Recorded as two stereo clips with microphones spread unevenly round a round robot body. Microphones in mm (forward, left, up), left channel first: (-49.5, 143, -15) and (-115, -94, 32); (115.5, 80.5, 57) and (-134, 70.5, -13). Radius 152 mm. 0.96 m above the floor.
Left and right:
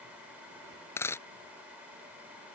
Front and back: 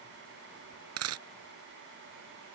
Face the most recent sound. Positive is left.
turn(degrees=165)